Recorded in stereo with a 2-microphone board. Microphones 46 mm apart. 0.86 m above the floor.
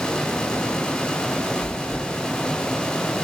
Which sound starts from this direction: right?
Chewing, at 1.6 s.